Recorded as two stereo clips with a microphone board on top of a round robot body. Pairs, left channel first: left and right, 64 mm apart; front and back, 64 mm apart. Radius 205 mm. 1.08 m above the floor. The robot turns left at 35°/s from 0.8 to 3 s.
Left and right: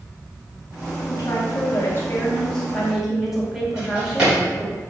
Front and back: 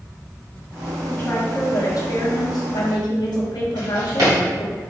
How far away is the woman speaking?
About 1.2 m.